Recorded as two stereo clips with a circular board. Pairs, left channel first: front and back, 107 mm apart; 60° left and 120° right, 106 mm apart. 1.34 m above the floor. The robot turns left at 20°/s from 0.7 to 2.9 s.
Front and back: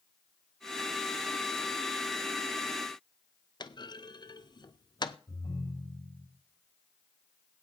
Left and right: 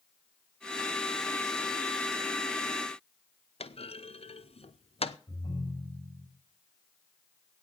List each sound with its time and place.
3.6 s a clunk: 45° left, 0.8 m
5.3 s a ringtone: 20° left, 7 m